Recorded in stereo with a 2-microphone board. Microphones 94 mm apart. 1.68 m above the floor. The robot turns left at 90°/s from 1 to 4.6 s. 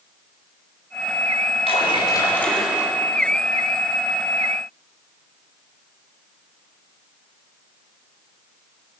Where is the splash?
85° left, 4.5 m; by 2.9 s 30° right, 4.5 m.